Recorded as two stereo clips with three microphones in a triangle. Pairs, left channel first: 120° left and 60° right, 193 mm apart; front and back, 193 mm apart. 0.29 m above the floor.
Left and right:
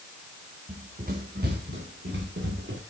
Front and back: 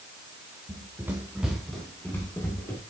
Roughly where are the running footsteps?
Right.